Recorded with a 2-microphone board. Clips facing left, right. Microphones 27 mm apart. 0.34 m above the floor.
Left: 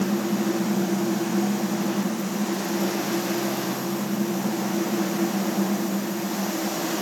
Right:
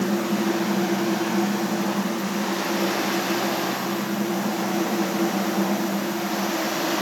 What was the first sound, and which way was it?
Only background noise.